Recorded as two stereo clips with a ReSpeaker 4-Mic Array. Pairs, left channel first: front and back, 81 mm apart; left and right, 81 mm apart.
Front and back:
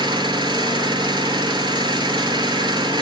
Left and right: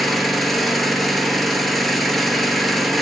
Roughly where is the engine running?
Behind.